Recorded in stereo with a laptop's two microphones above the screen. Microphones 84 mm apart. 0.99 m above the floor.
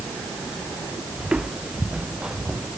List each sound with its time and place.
1.2 s footsteps: 10° right (ahead or behind)